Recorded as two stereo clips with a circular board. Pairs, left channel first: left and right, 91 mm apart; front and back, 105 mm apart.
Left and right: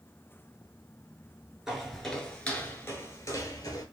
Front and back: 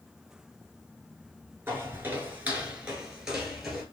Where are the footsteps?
165° right, 1.4 m; by 3.8 s 95° left, 1.7 m.